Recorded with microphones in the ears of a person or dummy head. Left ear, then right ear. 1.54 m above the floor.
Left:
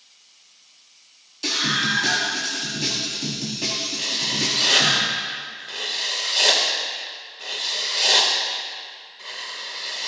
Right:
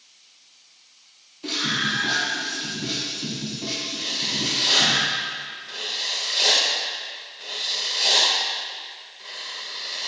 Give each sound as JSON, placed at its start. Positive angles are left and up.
{"t": 1.4, "sound": "a scream", "side_deg": 80, "distance_m": 4.0}
{"t": 4.0, "sound": "writing", "side_deg": 20, "distance_m": 2.0}